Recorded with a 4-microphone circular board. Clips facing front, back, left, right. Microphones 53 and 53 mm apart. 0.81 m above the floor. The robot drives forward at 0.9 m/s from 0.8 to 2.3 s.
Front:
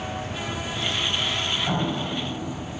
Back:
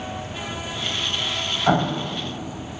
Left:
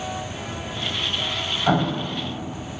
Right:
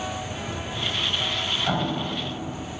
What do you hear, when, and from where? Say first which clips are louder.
1.7 s an explosion: back 5 dB, left 7 dB; 150° left, 0.9 m; by 2.2 s 160° left, 1.4 m